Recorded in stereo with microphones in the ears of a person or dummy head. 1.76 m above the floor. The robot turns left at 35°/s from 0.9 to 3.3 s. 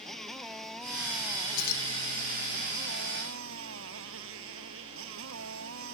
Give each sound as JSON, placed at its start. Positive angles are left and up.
{"t": 0.0, "sound": "a motorcycle", "azimuth_deg": 5}
{"t": 1.6, "sound": "keys jangling", "side_deg": 65}